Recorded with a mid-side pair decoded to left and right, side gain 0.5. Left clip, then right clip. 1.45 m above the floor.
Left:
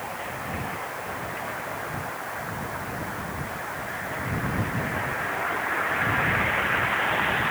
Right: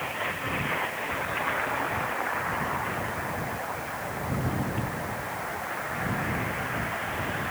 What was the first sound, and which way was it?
Only background noise.